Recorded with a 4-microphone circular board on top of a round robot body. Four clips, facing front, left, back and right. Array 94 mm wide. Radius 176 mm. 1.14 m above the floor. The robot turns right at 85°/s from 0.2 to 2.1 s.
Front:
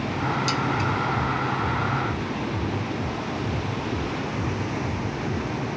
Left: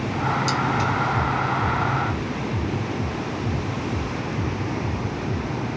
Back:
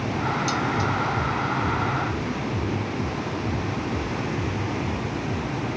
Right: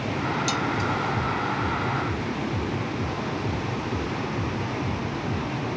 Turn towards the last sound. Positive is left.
turn(degrees=120)